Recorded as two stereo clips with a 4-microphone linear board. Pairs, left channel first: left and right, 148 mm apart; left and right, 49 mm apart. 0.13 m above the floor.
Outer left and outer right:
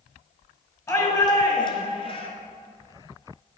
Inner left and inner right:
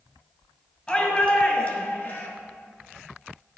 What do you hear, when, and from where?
0.9 s a shout: 25° left (ahead or behind), 2.5 m; by 2.3 s 40° left (ahead or behind), 2 m